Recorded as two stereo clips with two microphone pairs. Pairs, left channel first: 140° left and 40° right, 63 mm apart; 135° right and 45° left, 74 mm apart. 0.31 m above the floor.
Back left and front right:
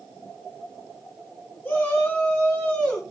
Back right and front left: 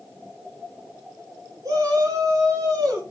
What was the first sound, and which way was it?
A shout, 75° left.